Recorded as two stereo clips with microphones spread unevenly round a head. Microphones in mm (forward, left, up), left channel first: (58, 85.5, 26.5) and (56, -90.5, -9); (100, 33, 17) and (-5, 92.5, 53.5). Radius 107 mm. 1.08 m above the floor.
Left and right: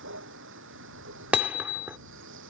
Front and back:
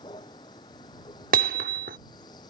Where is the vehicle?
95° right.